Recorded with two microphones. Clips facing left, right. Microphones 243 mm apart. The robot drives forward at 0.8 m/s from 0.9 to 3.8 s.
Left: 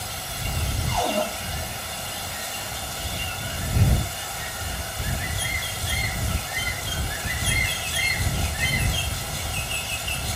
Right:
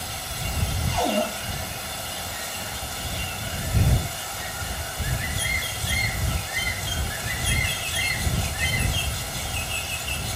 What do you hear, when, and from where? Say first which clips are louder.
0.9 s a cupboard door: right 2 dB; 20° right (ahead or behind), 9 m